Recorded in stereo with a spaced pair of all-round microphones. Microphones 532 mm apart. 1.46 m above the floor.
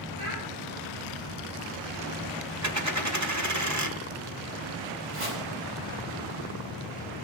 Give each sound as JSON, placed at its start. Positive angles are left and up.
{"t": 0.2, "sound": "a child speaking", "side_deg": -65, "distance_m": 9.0}
{"t": 2.6, "sound": "a dropped coin", "side_deg": -30, "distance_m": 1.4}
{"t": 5.1, "sound": "chopping", "side_deg": -75, "distance_m": 6.0}